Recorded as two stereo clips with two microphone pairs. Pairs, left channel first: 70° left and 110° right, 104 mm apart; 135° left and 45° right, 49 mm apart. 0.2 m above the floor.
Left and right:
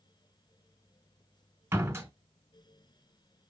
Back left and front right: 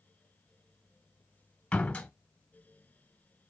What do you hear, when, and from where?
1.7 s a door slam: 165° right, 1.5 m